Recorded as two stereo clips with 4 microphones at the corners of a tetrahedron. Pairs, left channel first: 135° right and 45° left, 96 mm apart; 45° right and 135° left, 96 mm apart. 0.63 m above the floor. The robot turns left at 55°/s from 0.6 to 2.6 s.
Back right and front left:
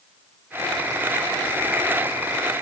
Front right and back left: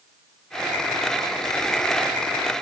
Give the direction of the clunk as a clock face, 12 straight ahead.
I don't hear a clunk.